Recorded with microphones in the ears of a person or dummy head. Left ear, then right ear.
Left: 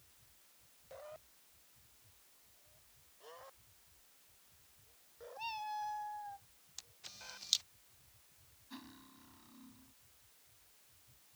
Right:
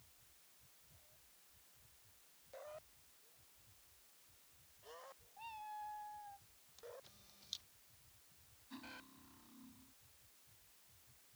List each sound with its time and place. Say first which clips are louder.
5.4 s a cat meowing: left 8 dB; 50° left (ahead or behind)
6.8 s a camera shutter: left 4 dB; 60° left (ahead or behind)
8.7 s cutlery clinking: even; 10° left (ahead or behind)